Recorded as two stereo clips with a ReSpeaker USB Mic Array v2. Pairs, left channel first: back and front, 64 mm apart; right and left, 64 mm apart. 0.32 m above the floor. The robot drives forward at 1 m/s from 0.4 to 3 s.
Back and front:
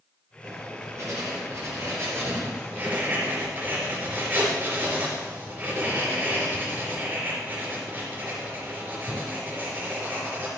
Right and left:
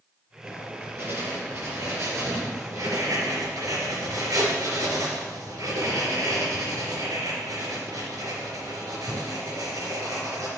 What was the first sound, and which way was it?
Writing, 35° left.